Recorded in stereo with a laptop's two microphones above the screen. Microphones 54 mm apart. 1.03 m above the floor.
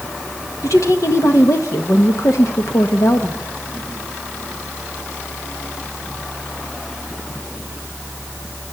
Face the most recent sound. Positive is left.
turn(degrees=70)  # may be behind; listen again after turning